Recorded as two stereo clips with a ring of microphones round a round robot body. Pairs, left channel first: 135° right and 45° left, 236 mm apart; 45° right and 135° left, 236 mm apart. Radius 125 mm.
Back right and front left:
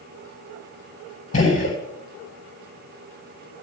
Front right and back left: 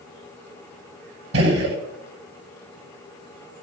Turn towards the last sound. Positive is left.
turn(degrees=165)